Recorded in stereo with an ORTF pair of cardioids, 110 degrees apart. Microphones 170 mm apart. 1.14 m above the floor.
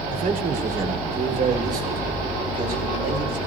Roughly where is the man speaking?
Ahead right.